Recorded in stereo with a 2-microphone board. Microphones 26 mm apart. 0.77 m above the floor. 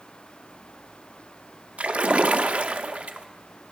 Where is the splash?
65° right (ahead or behind), 0.5 m.